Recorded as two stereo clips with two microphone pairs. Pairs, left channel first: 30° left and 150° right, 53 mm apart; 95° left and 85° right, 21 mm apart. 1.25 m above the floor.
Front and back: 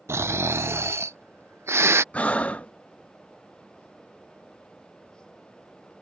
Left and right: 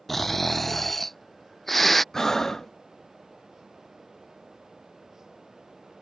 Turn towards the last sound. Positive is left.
turn(degrees=65)